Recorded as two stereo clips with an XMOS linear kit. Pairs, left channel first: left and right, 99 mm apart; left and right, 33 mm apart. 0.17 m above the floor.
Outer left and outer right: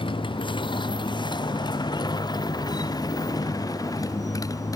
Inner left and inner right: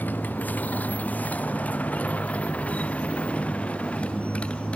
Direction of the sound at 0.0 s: 55° left (ahead or behind).